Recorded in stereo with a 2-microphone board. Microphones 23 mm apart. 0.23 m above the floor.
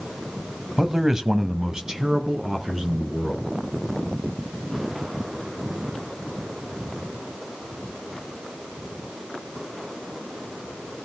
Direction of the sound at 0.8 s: 20° right (ahead or behind).